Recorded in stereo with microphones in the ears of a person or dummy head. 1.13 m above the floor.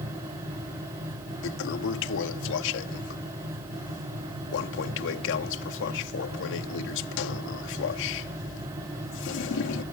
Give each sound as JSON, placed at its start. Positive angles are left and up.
{"t": 1.4, "sound": "a toilet flushing", "side_deg": 70}